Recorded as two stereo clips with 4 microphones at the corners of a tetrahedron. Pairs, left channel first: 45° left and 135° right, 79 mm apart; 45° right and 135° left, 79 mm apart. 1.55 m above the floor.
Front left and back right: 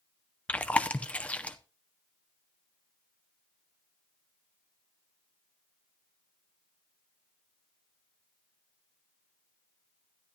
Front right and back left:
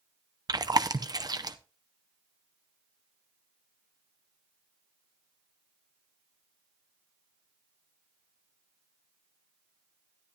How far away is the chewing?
About 0.6 m.